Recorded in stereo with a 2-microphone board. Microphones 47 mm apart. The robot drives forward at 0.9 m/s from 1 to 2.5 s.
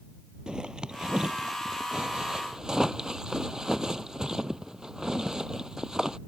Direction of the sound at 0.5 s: 15° right (ahead or behind).